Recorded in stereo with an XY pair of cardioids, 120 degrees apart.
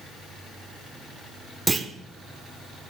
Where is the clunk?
15° right, 0.7 m.